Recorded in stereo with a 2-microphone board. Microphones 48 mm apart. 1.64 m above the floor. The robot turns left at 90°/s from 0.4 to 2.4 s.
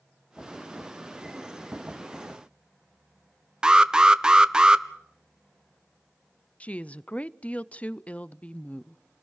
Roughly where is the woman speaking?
Left.